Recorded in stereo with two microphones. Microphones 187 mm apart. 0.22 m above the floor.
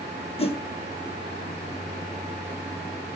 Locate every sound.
0.4 s a whoosh: 30° left (ahead or behind), 0.7 m